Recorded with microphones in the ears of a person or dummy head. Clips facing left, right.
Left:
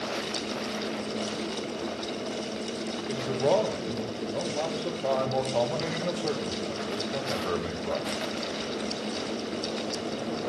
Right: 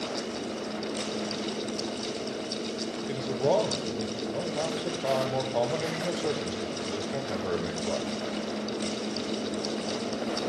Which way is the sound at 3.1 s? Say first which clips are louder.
Left 1 dB; 5° right (ahead or behind).